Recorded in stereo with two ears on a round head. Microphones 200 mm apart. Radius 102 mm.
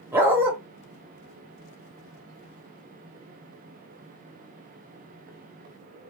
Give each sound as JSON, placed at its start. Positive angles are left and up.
{"t": 0.1, "sound": "a dog barking", "side_deg": -10, "distance_m": 1.2}